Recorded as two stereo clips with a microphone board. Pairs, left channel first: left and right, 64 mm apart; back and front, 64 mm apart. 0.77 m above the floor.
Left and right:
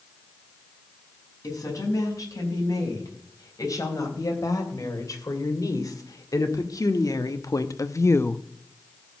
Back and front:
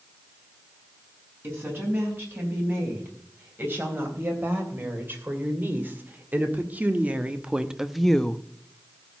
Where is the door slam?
No door slam in this recording.